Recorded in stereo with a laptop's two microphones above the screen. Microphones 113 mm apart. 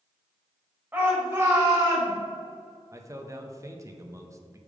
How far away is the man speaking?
About 0.8 m.